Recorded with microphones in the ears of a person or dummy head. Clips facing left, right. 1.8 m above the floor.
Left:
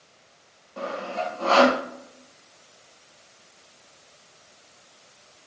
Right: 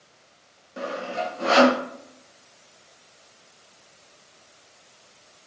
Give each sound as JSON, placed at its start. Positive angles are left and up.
{"t": 0.8, "sound": "sawing", "side_deg": -15, "distance_m": 1.0}